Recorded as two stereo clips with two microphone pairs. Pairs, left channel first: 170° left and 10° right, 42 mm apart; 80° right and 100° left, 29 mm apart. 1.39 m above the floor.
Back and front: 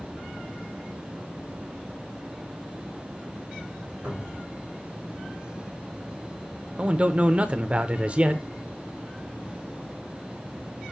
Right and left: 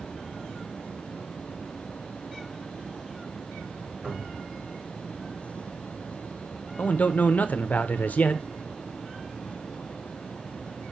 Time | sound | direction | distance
4.0 | a cupboard door | 55° left | 5.5 m
6.8 | a man speaking | 65° right | 0.5 m